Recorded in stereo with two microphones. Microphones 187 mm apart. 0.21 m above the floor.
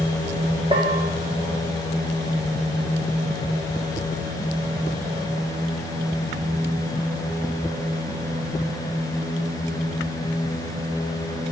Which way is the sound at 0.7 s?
30° right (ahead or behind).